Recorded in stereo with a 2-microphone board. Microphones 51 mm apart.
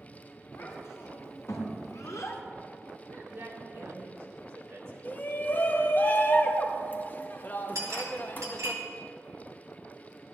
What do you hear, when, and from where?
0.5 s a child speaking: 60° left (ahead or behind), 3.5 m
3.0 s a man speaking: 50° right (ahead or behind), 2.5 m
5.0 s a shout: 40° left (ahead or behind), 0.9 m
7.8 s a clink: 75° right (ahead or behind), 1.9 m